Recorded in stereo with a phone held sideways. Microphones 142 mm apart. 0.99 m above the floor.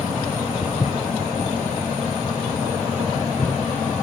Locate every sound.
0.6 s footsteps: 30° left (ahead or behind), 1.1 m; by 3.5 s 60° left (ahead or behind), 3.5 m